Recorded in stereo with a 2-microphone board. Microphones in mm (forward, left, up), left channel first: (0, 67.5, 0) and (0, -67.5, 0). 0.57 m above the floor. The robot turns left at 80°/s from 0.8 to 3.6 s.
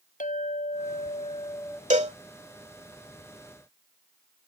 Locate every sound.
0.2 s a clink: 85° left; by 1.8 s 5° left
1.9 s a cowbell: 60° right (ahead or behind); by 2.2 s 50° right (ahead or behind)